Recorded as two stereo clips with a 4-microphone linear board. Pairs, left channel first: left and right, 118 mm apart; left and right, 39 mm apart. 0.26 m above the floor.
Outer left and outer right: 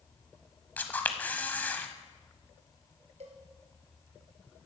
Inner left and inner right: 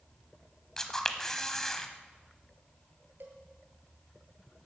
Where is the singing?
No singing in this recording.